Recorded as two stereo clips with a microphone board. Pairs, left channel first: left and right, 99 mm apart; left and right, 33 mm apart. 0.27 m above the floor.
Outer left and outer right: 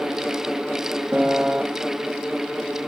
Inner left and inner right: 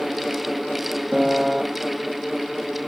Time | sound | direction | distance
1.1 | a piano | 15° right (ahead or behind) | 0.6 m